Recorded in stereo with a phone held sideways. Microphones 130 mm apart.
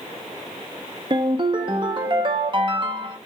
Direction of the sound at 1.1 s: 40° right (ahead or behind).